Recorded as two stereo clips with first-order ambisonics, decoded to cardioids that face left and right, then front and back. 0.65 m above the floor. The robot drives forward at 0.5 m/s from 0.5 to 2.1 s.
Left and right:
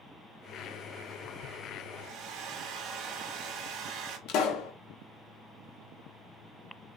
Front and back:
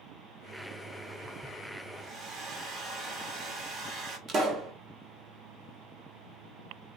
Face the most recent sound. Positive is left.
turn(degrees=120)